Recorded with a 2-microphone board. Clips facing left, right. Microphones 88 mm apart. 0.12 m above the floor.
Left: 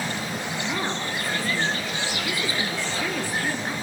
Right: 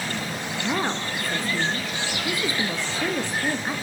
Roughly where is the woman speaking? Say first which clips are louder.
Right 4 dB; centre.